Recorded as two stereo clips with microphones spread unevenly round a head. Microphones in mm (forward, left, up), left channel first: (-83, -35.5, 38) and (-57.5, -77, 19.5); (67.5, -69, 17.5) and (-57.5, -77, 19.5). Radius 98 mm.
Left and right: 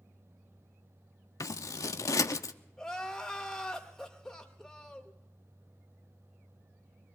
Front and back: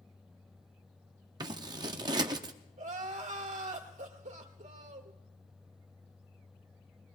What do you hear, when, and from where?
1.4 s scissors: 130° left, 0.5 m
2.8 s crying: 155° right, 1.9 m